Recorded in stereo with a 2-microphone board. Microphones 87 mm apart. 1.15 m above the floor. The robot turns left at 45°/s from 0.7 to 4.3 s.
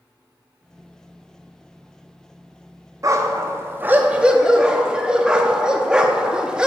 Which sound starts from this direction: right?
A dog barking, at 3.0 s.